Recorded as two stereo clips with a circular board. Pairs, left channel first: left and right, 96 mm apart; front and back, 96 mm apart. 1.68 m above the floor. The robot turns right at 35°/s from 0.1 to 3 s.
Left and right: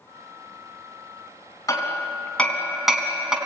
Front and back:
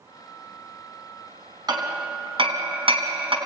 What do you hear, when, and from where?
1.7 s hammering: 140° left, 3.5 m; by 3.4 s 175° right, 3.5 m